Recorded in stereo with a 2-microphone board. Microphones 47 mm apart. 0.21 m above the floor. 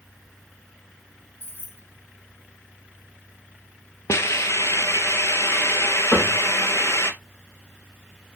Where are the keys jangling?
55° left (ahead or behind), 1.2 m.